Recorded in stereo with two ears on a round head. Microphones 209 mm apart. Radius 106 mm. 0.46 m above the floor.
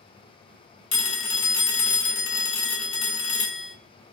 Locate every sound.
0.9 s a phone ringing: 55° left (ahead or behind), 1.0 m